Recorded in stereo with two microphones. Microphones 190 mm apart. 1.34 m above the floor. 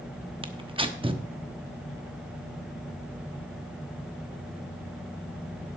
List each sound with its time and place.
0.4 s tearing paper: 25° right (ahead or behind), 0.9 m